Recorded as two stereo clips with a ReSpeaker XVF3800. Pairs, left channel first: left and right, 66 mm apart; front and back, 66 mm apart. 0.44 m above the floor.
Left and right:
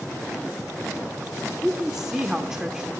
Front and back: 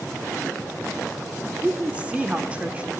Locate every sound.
1.6 s a woman speaking: 155° right, 1.1 m